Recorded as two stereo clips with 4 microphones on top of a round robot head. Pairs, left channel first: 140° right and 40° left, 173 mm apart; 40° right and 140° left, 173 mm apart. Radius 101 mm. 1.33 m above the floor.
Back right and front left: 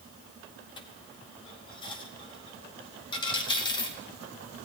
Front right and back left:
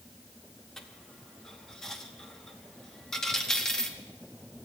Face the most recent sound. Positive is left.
turn(degrees=-120)